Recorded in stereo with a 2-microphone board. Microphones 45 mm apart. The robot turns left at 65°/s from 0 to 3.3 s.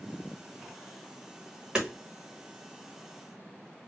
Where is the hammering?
15° right (ahead or behind), 1.1 m; by 1.9 s 10° right (ahead or behind), 1.1 m.